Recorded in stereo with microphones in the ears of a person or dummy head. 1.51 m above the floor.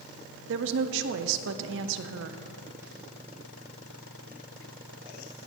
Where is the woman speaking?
65° right (ahead or behind), 0.7 m.